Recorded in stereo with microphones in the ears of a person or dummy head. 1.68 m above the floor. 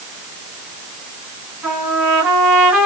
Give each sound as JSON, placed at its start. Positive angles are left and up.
{"t": 1.6, "sound": "a trumpet", "side_deg": -10, "distance_m": 2.0}